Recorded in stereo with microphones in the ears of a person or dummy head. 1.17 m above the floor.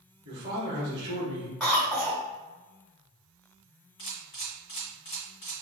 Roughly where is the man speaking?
Right.